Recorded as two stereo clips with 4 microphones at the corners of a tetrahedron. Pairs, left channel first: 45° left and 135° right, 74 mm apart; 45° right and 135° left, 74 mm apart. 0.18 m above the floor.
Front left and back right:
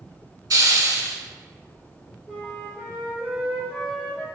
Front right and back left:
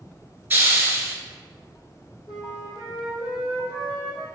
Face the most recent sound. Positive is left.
turn(degrees=-35)